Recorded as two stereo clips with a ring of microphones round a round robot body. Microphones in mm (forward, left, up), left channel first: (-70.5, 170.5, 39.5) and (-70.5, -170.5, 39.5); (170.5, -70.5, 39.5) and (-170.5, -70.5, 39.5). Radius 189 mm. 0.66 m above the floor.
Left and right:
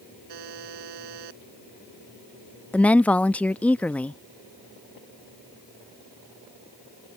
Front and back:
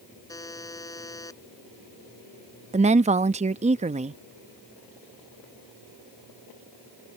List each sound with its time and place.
0.3 s a buzzer: 80° right
2.7 s a woman speaking: 170° left